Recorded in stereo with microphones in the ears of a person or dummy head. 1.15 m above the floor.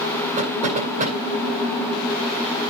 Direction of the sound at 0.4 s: 40° right (ahead or behind).